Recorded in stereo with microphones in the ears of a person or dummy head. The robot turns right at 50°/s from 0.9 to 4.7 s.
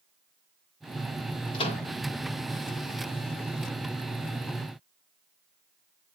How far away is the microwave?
About 1.5 m.